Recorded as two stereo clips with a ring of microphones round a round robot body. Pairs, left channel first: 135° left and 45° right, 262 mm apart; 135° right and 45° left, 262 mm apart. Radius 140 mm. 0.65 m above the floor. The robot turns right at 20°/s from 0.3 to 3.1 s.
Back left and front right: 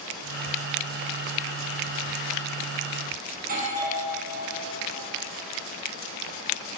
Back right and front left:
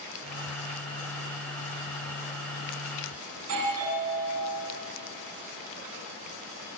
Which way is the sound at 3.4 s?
15° left.